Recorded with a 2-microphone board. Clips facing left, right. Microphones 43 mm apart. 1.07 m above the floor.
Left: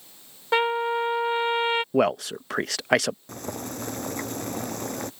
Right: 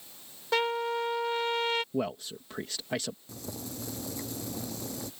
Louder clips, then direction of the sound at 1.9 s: Left 10 dB; 80° left.